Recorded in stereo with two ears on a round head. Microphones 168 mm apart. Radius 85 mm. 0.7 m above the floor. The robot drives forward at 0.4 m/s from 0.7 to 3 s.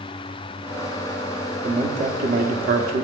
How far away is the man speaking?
About 1.1 m.